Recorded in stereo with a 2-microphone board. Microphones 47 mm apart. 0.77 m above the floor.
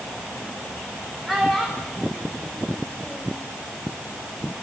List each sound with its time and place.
1.3 s a child speaking: centre (ahead or behind), 3 m; by 3.4 s 25° left (ahead or behind), 3 m